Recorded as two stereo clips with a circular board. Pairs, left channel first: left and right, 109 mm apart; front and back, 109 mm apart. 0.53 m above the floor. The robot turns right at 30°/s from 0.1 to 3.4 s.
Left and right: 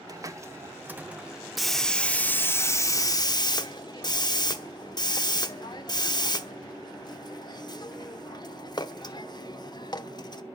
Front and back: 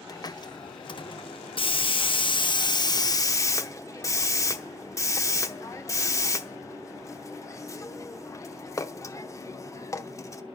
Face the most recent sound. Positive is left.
turn(degrees=55)